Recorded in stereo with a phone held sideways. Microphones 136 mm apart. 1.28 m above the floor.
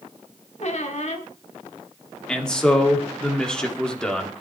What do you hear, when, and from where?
0.6 s a squeak: 55° left (ahead or behind), 1.9 m
2.3 s a man speaking: 5° left (ahead or behind), 2.5 m